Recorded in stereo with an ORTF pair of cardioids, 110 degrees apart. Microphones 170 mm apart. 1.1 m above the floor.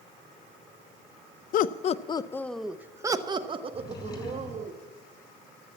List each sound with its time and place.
1.5 s laughter: 60° left, 0.6 m; by 4.7 s 45° right, 1.6 m
3.7 s a drawer: 25° left, 6 m